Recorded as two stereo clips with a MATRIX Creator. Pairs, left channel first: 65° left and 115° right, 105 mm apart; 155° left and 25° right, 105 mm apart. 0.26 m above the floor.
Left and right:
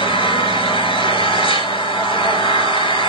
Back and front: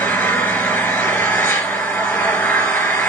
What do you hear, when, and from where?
0.0 s an engine running: 95° left, 3 m